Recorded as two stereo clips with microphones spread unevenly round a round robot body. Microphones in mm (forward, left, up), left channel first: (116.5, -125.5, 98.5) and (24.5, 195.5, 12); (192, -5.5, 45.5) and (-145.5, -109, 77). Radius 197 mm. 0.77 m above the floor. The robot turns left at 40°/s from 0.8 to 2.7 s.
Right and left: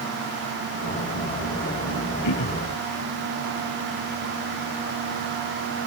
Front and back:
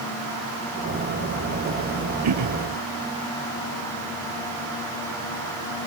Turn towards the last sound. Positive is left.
turn(degrees=-140)